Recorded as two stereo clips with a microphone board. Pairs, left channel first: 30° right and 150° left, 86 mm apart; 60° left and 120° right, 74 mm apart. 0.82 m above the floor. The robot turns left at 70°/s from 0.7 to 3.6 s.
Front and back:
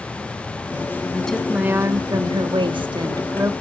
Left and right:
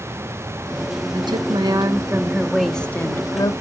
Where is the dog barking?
No dog barking in this recording.